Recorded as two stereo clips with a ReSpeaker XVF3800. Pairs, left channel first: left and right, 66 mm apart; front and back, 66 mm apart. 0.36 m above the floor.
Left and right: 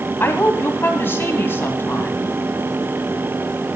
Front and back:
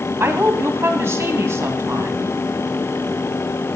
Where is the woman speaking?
140° left, 2.0 m.